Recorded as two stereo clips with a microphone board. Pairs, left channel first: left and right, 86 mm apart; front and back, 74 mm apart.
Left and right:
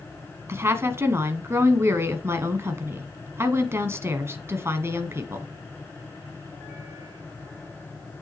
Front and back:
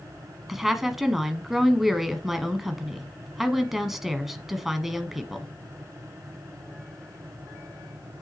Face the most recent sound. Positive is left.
turn(degrees=-100)